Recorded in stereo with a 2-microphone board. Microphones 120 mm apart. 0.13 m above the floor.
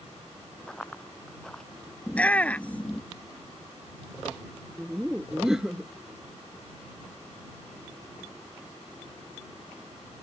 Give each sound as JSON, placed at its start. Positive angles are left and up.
{"t": 0.7, "sound": "running footsteps", "side_deg": 5}
{"t": 2.1, "sound": "a shout", "side_deg": 10}
{"t": 4.8, "sound": "laughter", "side_deg": -5}